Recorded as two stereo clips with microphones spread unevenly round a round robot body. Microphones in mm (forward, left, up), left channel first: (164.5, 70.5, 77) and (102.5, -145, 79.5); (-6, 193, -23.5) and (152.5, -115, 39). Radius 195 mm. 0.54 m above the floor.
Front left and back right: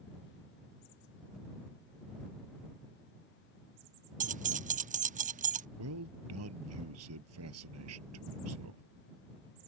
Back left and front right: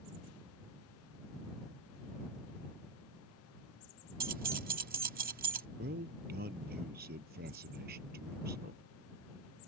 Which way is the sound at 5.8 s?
130° right.